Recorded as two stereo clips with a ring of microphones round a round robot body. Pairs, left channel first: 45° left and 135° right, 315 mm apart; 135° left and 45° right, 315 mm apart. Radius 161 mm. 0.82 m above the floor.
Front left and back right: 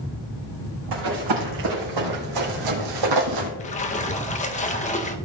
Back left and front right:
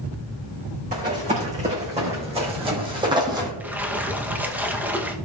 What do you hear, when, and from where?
0.9 s running footsteps: 115° right, 4 m; by 3.5 s 125° right, 2 m
3.6 s a splash: 30° left, 1.0 m